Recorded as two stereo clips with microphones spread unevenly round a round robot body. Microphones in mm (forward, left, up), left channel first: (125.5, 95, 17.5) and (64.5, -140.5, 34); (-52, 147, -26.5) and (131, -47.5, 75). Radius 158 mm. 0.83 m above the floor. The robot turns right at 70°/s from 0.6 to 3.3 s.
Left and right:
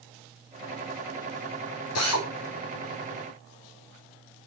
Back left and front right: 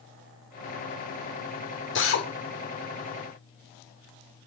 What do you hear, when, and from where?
1.9 s a drill: 100° left, 3.5 m; by 2.3 s 120° left, 3.5 m